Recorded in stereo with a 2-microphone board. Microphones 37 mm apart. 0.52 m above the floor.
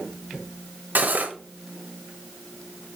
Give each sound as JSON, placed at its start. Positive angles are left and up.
{"t": 0.9, "sound": "cutlery clinking", "side_deg": -55, "distance_m": 1.2}